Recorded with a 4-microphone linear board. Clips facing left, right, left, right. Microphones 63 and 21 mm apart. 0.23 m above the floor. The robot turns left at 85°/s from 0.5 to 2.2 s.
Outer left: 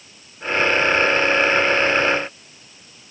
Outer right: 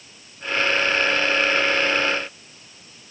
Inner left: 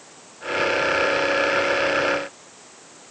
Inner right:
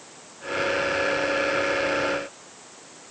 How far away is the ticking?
No ticking in this recording.